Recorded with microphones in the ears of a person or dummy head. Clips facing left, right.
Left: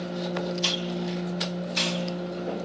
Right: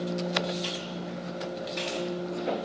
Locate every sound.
0.6 s a hiss: 70° left (ahead or behind), 4 m